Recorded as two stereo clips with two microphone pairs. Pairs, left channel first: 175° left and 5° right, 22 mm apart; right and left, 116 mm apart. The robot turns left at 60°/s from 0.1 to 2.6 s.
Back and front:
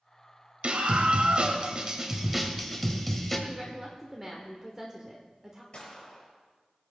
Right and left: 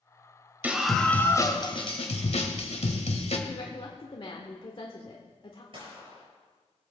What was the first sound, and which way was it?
A scream, 15° left.